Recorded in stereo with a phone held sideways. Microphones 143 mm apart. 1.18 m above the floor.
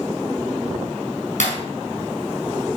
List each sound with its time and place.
1.4 s breaking glass: 70° left (ahead or behind), 4.5 m